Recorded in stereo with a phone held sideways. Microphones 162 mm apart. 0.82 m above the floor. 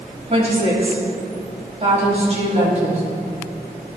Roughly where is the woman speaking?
Right.